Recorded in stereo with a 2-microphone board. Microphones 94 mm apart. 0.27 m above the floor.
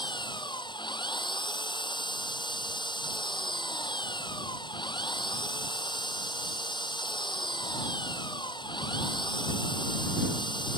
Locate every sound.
0.0 s an engine running: 55° left (ahead or behind)